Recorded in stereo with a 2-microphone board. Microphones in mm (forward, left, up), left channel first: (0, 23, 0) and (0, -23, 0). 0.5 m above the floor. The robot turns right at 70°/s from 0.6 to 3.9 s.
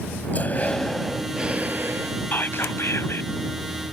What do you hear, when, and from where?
0.3 s breathing: 145° left; by 2.2 s 105° right
2.3 s whispering: 50° left; by 3.3 s 120° left